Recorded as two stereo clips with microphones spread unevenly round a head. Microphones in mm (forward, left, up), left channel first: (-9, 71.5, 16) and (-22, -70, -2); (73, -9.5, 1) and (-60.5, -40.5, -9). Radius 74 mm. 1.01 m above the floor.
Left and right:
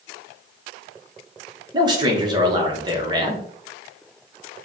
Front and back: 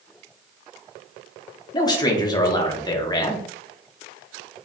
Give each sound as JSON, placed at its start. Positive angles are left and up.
{"t": 1.7, "sound": "a man speaking", "azimuth_deg": -45, "distance_m": 1.1}